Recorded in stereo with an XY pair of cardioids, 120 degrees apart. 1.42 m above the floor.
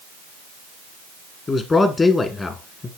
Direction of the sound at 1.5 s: 30° left.